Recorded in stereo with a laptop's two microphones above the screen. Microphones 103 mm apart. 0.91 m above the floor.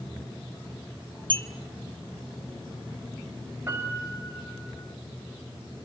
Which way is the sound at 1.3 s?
50° right (ahead or behind).